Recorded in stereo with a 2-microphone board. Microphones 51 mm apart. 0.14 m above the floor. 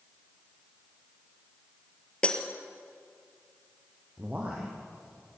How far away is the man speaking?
About 4.5 m.